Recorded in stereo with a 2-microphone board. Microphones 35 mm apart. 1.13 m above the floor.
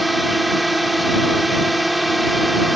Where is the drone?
Centre (ahead or behind).